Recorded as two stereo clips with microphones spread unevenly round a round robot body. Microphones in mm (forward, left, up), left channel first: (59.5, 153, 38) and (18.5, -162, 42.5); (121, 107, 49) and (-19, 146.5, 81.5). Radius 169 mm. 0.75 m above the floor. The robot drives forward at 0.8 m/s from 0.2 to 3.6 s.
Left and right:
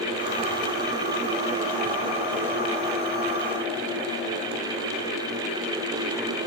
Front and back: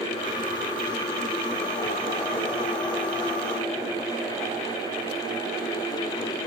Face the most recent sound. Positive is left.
No sound to turn to.